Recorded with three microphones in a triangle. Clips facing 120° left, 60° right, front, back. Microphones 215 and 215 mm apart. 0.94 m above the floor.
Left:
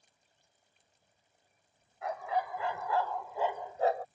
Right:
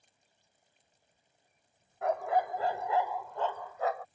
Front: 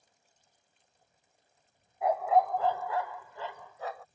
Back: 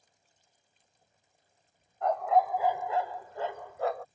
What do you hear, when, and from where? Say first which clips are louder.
2.0 s a dog barking: right 5 dB, even; 80° right; by 4.0 s 170° left